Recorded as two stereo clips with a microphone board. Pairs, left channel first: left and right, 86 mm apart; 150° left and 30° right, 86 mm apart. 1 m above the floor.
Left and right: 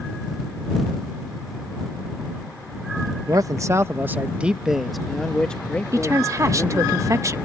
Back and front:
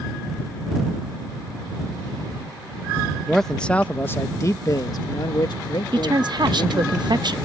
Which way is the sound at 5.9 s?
45° right.